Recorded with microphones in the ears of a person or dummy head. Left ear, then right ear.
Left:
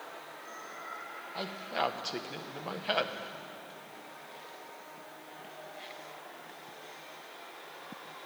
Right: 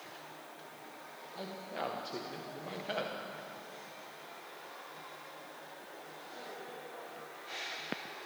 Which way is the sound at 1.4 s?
40° left (ahead or behind).